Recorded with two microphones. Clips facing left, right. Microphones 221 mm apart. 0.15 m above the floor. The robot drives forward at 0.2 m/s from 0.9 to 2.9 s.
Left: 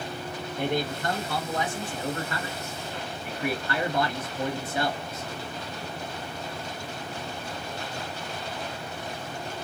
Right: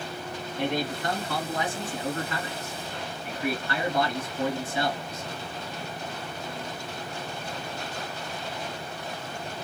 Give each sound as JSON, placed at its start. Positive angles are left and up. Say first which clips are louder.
{"t": 0.6, "sound": "a man speaking", "louder": "even", "side_deg": 45, "distance_m": 1.9}